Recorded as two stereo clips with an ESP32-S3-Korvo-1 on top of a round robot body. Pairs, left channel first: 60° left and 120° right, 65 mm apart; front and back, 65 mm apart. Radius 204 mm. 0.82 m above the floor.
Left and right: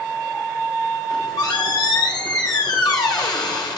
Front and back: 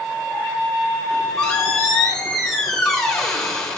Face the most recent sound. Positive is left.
turn(degrees=80)